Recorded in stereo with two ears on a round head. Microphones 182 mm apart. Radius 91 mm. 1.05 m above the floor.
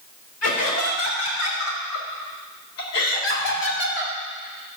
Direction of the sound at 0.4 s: 85° left.